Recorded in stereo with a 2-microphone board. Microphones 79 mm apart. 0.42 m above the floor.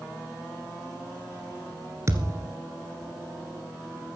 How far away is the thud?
About 1.9 m.